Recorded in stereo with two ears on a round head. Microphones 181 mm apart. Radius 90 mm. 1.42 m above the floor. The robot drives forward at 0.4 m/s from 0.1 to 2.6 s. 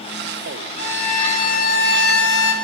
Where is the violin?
30° left (ahead or behind), 1.2 m; by 2.5 s 65° left (ahead or behind), 0.7 m.